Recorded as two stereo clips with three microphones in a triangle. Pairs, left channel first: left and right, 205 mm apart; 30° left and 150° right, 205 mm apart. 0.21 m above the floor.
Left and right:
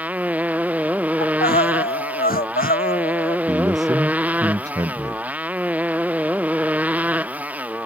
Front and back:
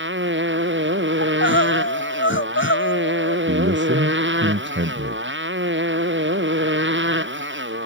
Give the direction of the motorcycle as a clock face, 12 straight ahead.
6 o'clock.